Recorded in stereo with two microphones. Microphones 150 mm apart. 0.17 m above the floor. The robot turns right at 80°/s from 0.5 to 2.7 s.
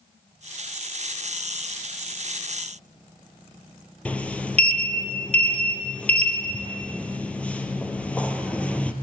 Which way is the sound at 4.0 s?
10° left (ahead or behind).